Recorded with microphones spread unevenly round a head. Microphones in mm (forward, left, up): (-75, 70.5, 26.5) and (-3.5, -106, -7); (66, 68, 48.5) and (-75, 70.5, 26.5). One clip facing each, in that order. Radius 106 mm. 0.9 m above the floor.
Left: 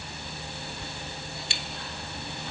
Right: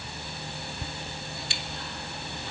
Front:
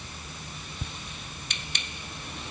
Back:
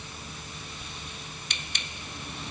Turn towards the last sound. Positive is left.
turn(degrees=-10)